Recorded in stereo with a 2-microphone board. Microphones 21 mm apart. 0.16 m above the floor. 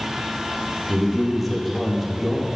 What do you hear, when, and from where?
0.9 s a man speaking: 10° right (ahead or behind), 4 m